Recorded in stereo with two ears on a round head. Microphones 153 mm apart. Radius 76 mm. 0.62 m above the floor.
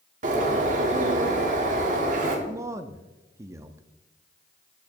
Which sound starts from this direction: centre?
A man speaking, at 2.5 s.